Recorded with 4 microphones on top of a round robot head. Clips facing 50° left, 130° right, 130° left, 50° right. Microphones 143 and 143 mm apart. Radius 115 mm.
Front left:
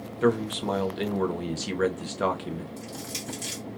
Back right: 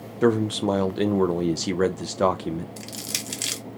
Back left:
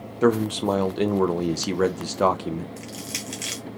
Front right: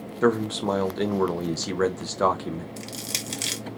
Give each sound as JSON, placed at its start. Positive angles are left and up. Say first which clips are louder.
{"t": 0.2, "sound": "a man speaking", "louder": "back right 4 dB, back left 2 dB", "azimuth_deg": -160, "distance_m": 0.6}
{"t": 2.8, "sound": "crushing", "louder": "even, even", "azimuth_deg": -105, "distance_m": 0.6}